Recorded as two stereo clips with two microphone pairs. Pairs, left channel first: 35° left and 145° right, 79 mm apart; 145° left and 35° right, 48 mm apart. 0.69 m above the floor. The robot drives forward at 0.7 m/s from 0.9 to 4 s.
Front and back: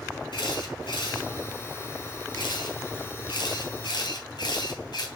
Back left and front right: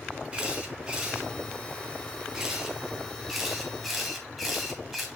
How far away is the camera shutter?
About 5 m.